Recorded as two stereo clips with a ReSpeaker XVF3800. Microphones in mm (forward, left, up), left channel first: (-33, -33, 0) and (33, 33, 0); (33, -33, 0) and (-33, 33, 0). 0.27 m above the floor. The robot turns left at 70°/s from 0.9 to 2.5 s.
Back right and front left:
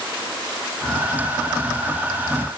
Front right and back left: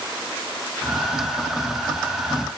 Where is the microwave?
I don't hear a microwave.